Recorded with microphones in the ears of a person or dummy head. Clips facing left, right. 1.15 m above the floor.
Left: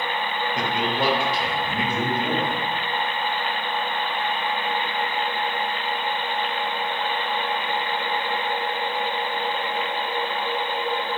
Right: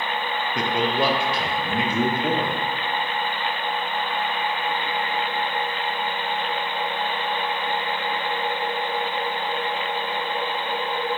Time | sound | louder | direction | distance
0.6 | a man speaking | right 3 dB | 75° right (ahead or behind) | 0.8 m